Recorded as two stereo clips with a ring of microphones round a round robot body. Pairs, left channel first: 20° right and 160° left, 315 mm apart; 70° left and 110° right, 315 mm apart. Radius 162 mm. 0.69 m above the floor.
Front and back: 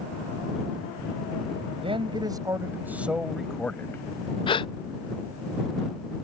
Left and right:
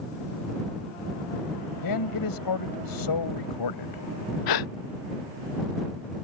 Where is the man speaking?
85° left; by 4.0 s 60° left.